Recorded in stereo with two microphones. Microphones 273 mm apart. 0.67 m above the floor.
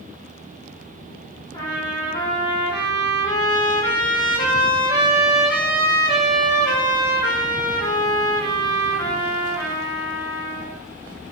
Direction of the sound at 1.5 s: 15° left (ahead or behind).